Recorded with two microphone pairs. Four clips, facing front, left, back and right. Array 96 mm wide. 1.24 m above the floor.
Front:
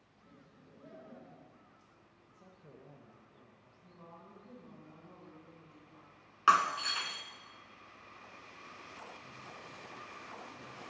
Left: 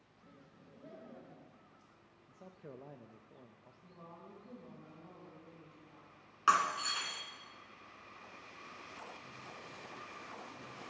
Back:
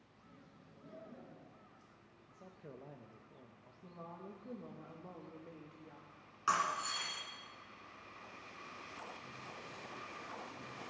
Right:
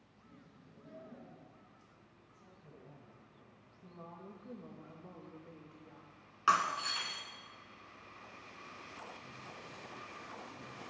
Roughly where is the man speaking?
Behind left.